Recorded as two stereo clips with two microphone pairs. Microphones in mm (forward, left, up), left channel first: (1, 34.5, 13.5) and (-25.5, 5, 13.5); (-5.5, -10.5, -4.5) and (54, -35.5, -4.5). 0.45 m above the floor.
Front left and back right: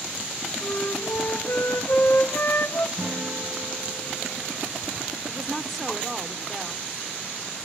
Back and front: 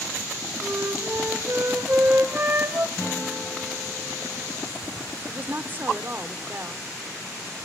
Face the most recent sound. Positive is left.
turn(degrees=-40)